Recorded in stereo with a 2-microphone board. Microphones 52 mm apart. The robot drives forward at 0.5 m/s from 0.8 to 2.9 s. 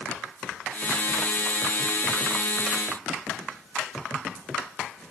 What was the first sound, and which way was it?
Only background noise.